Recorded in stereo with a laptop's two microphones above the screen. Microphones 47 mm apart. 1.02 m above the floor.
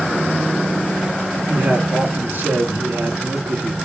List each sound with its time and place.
1.5 s a man speaking: 60° right (ahead or behind), 2.5 m